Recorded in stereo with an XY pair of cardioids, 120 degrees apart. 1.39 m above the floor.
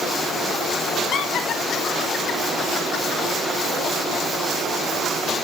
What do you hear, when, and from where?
1.1 s laughter: 60° left, 1.8 m